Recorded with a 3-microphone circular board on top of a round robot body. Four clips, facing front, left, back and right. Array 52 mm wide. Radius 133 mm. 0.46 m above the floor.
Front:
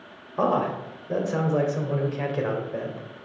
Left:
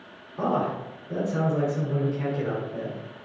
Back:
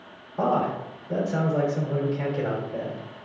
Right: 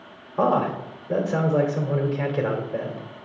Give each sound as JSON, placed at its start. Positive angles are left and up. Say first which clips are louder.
{"t": 0.4, "sound": "a man speaking", "louder": "right 5 dB, even", "azimuth_deg": -60, "distance_m": 2.0}